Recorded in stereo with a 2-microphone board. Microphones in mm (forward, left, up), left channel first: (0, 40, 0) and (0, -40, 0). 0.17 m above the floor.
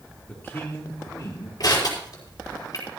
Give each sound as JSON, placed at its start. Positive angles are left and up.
{"t": 0.3, "sound": "a man speaking", "side_deg": 20, "distance_m": 4.0}
{"t": 1.6, "sound": "crushing", "side_deg": 50, "distance_m": 4.5}